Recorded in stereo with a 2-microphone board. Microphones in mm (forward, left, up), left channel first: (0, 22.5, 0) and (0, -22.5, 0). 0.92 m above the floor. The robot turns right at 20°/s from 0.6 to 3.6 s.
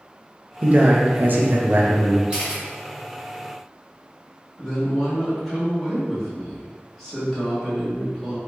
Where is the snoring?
I don't hear snoring.